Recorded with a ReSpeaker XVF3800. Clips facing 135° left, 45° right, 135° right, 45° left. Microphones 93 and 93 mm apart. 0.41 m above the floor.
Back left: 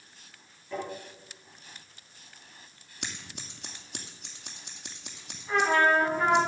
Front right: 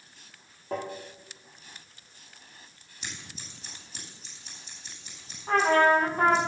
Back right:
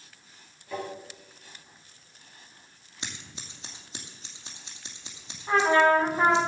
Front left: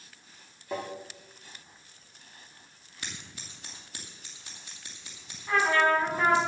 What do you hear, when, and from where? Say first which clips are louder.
0.7 s tapping: front right 2 dB, even; 10° right, 5.5 m
3.0 s scissors: back left 2 dB, back right 1 dB; 155° left, 2.5 m
5.5 s a trumpet: front right 2 dB, back right 4 dB; 70° right, 3 m